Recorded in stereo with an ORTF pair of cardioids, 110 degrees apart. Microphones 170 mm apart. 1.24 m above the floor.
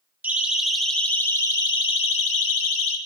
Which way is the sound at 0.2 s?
10° right.